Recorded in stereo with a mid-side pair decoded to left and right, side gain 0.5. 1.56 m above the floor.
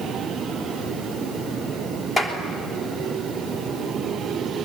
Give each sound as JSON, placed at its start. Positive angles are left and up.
{"t": 2.2, "sound": "a clap", "azimuth_deg": 25, "distance_m": 3.5}